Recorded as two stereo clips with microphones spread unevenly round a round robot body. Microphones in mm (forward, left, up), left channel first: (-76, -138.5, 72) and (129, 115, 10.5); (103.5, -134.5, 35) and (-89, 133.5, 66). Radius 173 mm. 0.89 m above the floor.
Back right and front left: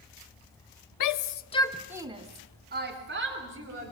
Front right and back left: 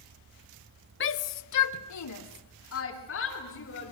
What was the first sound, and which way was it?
A shout, 100° right.